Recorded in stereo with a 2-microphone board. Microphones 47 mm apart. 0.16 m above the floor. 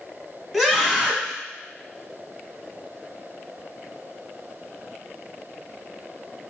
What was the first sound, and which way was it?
A scream, 5° left (ahead or behind).